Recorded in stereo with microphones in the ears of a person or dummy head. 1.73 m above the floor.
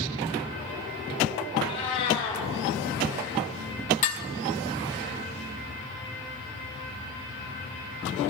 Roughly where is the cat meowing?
Left.